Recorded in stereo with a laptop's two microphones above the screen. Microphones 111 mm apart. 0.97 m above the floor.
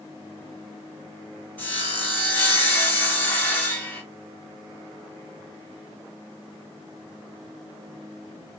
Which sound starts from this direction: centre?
Sawing, at 1.6 s.